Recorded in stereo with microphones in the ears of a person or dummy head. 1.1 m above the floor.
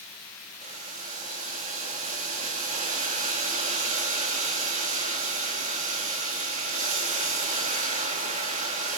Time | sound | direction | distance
0.6 | boiling | 40° right (ahead or behind) | 1.2 m